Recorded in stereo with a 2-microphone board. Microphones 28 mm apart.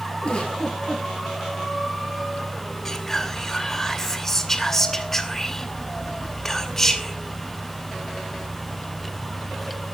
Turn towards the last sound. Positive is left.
turn(degrees=10)  # may be behind; listen again after turning